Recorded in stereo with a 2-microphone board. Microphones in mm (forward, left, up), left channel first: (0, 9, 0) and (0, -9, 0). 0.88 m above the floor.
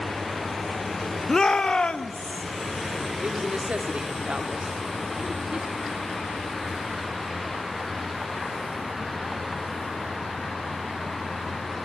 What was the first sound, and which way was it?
A shout, 30° left (ahead or behind).